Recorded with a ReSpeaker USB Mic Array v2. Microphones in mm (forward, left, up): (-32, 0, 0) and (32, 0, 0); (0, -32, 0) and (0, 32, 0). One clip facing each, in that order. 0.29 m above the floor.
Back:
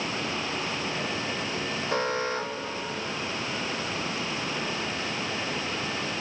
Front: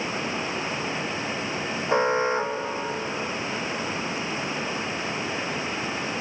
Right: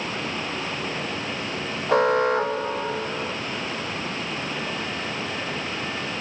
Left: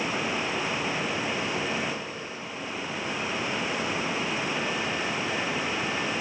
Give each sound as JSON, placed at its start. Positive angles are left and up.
{"t": 1.9, "sound": "an alarm", "azimuth_deg": -65}